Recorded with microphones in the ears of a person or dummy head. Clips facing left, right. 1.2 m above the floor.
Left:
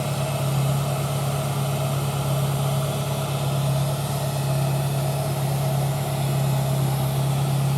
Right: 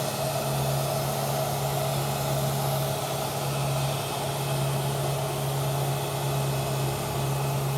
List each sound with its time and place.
0.0 s an engine running: 40° left (ahead or behind), 2 m